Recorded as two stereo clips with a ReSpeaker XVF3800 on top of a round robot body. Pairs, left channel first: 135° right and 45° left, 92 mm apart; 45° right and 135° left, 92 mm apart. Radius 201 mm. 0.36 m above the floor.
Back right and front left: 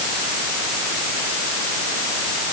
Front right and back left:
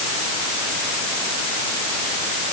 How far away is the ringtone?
No ringtone in this recording.